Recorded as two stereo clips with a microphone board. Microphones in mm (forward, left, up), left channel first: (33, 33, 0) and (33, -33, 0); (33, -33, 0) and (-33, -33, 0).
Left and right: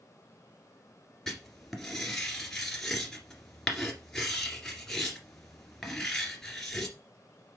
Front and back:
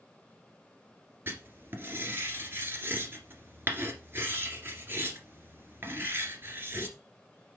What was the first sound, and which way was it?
Writing, 170° left.